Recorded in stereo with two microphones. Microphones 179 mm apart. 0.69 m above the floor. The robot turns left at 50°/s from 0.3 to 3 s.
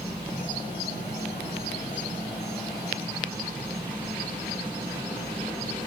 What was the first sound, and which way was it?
An insect, 35° right.